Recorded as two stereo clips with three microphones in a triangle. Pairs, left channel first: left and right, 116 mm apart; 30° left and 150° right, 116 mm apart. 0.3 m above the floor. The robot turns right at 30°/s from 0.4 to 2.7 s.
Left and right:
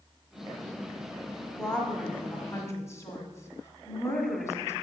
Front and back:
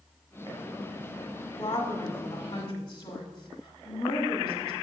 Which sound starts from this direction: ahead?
A woman speaking, at 1.6 s.